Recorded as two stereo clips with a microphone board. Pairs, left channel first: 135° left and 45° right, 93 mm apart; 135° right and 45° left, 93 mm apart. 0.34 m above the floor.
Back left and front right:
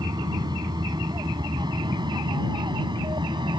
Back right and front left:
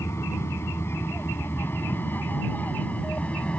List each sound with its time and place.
0.0 s an aircraft: 80° right; by 3.6 s 60° right